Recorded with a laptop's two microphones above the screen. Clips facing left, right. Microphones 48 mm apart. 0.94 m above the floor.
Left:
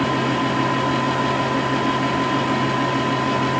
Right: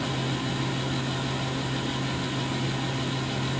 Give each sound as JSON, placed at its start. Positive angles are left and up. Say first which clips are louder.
{"t": 0.0, "sound": "a fan", "louder": "left 10 dB", "side_deg": 60, "distance_m": 1.3}